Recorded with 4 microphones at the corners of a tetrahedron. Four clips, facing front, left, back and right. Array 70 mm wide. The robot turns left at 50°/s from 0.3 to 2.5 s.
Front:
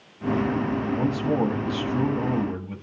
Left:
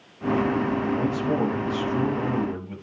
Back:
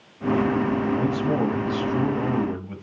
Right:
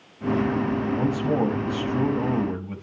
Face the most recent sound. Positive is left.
turn(degrees=-130)